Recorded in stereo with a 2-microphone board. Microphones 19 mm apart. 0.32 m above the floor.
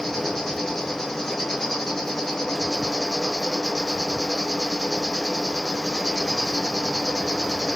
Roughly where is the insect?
Centre.